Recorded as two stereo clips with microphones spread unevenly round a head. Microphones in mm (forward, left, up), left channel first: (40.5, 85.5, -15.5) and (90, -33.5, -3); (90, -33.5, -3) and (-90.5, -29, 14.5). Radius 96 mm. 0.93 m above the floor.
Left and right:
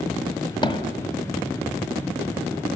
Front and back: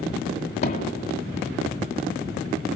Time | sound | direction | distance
0.6 | hammering | 60° left | 2.5 m